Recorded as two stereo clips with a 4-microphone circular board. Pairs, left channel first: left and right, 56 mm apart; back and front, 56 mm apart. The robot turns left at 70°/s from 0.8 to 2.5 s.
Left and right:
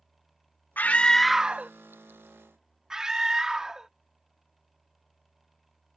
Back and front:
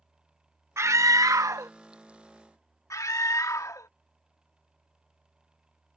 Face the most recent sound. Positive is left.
turn(degrees=-170)